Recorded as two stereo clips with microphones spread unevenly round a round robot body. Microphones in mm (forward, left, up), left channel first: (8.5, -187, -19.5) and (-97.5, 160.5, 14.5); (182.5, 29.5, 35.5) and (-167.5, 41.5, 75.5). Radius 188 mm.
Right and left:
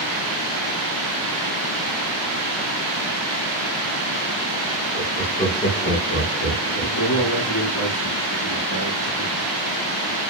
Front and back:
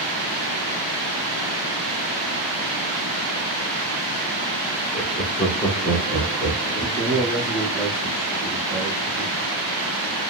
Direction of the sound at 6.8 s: 100° right.